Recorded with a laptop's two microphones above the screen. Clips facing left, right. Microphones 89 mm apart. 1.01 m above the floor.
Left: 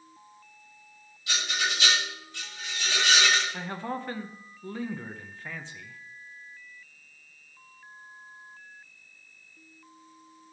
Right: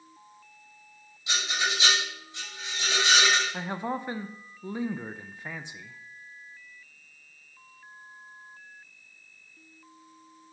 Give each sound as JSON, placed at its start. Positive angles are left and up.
{"t": 1.3, "sound": "a rattle", "side_deg": -20, "distance_m": 5.0}
{"t": 3.5, "sound": "a man speaking", "side_deg": -20, "distance_m": 0.5}